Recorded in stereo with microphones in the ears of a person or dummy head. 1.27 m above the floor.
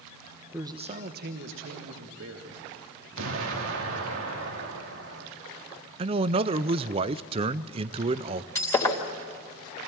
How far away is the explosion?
About 2.5 m.